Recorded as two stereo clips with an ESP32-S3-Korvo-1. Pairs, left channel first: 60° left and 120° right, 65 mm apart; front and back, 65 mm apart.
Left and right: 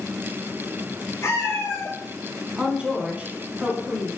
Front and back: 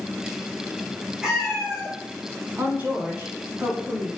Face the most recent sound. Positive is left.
turn(degrees=180)